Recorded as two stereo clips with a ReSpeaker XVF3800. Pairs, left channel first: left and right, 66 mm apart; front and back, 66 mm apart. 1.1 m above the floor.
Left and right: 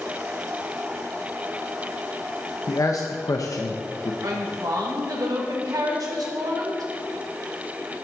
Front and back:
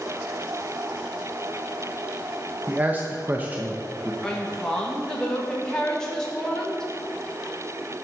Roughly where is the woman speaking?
Right.